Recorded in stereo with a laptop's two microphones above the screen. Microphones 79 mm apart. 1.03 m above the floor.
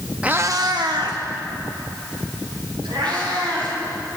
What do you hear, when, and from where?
0.2 s a cat meowing: 15° right (ahead or behind), 0.6 m; by 3.7 s 80° right, 5 m